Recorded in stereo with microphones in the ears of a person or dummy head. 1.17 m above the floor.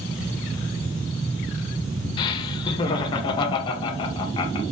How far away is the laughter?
About 0.7 m.